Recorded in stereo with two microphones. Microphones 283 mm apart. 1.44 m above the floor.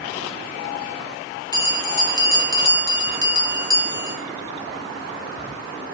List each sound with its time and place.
1.5 s a bell: 15° left (ahead or behind), 1.6 m